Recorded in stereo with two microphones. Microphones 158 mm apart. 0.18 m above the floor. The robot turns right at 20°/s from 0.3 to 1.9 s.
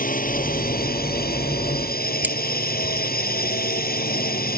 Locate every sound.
0.0 s a drone: 60° left (ahead or behind); by 4.6 s 70° left (ahead or behind)
2.2 s cutlery clinking: 10° right (ahead or behind)